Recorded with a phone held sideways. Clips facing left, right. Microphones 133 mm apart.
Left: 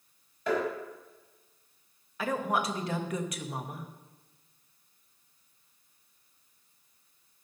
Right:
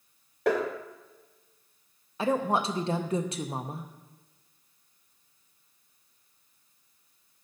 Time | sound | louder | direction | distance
0.5 | tapping | right 3 dB | 75° right (ahead or behind) | 1.9 m
2.2 | a woman speaking | right 4 dB | 30° right (ahead or behind) | 0.5 m